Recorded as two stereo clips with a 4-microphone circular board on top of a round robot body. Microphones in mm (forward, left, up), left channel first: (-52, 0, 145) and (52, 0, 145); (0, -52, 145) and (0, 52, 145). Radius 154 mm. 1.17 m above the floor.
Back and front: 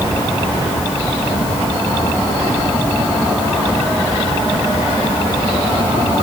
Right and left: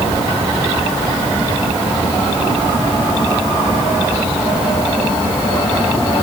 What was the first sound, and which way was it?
Only background noise.